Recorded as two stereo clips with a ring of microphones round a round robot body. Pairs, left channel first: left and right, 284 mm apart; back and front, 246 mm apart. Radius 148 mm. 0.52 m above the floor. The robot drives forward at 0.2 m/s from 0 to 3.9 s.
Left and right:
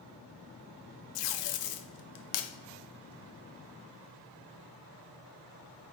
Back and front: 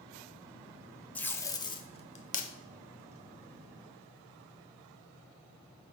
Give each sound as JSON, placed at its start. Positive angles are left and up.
{"t": 1.1, "sound": "tape being pulled", "azimuth_deg": 95, "distance_m": 0.5}